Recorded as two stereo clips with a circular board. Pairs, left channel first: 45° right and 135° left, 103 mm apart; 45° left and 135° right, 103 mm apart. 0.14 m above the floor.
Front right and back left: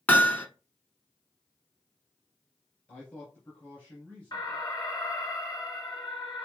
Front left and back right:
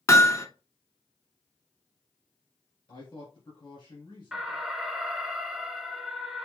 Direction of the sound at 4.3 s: 50° right.